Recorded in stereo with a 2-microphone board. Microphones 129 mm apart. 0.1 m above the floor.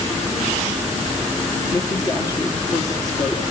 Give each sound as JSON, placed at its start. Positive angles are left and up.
{"t": 1.7, "sound": "a woman speaking", "side_deg": 30, "distance_m": 3.0}